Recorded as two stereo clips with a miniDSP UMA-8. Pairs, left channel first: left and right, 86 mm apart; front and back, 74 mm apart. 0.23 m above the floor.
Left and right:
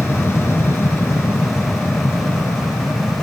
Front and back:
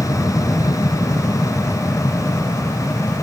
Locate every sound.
0.0 s an aircraft: 30° left